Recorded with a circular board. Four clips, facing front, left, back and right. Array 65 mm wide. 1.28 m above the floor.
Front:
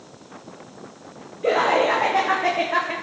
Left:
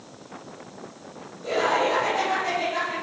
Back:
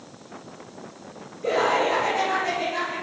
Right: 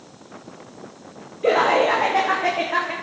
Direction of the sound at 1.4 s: 70° right.